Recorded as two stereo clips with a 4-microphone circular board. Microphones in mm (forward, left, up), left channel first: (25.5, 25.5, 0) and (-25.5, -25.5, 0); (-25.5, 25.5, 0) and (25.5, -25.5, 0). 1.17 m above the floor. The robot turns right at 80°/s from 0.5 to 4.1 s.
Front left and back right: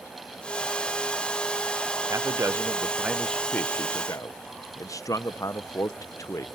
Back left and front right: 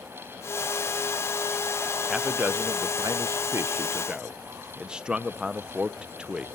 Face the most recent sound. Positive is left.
turn(degrees=30)